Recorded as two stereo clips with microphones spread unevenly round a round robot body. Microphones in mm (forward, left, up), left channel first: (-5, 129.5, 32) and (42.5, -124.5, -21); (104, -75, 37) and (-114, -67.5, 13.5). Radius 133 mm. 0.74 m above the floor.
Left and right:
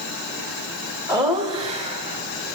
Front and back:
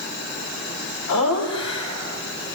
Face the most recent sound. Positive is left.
turn(degrees=-25)